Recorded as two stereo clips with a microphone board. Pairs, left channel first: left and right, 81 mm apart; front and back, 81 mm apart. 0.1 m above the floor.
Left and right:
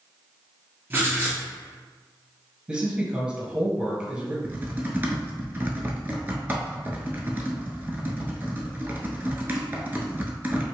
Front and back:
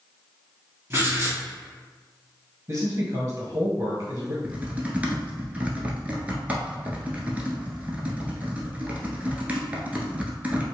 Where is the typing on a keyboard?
130° right, 0.8 m.